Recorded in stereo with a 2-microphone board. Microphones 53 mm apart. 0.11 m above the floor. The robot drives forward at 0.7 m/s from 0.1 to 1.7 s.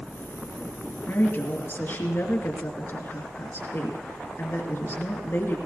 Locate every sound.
1.1 s a woman speaking: 45° left (ahead or behind), 2.5 m